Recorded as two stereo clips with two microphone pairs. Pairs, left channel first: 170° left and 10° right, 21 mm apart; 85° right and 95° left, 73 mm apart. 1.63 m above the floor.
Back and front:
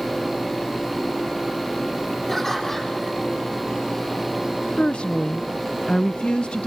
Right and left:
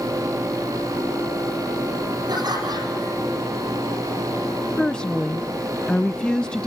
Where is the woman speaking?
165° right, 0.8 m.